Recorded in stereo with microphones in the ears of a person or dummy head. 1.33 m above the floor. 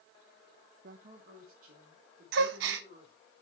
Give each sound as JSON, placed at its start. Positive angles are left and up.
{"t": 0.8, "sound": "a woman speaking", "side_deg": -55, "distance_m": 0.8}
{"t": 2.3, "sound": "a gasp", "side_deg": -70, "distance_m": 0.9}